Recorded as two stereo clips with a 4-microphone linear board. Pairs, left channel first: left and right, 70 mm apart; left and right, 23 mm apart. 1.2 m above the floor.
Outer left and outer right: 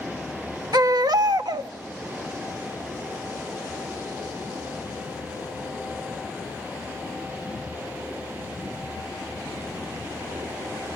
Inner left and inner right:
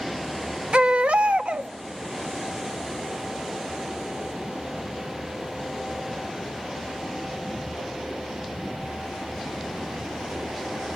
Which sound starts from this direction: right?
A baby crying, at 0.7 s.